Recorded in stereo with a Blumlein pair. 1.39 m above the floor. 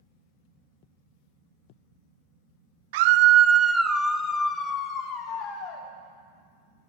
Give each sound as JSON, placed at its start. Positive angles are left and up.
{"t": 2.9, "sound": "a scream", "azimuth_deg": -55, "distance_m": 0.6}